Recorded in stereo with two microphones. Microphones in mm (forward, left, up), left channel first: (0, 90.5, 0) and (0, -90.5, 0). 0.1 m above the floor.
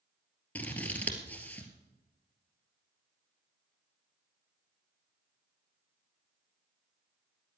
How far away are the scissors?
About 2.0 m.